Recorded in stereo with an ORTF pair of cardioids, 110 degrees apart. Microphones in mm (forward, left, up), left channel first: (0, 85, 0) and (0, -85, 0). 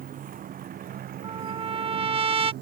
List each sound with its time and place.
0.0 s a motorcycle: 55° right; by 2.6 s 70° right
1.2 s a trumpet: 35° right